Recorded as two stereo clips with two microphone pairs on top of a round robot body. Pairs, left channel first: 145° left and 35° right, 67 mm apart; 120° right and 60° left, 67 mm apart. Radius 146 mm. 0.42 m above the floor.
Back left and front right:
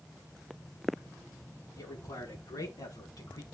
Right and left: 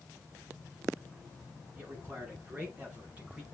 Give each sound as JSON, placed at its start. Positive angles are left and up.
{"t": 1.8, "sound": "a man speaking", "azimuth_deg": 125, "distance_m": 7.0}